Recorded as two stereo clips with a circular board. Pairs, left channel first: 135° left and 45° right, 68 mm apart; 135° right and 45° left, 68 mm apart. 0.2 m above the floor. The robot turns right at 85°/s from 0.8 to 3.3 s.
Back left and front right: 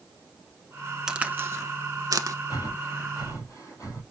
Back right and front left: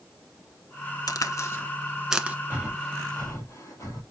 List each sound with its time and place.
1.1 s a crack: 125° right, 0.8 m; by 2.4 s 15° right, 0.8 m
2.5 s breathing: 105° left, 3 m; by 4.0 s 175° left, 3 m